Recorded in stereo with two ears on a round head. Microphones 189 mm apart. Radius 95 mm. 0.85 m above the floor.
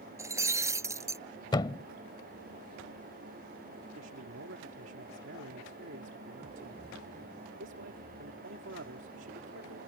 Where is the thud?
20° left (ahead or behind).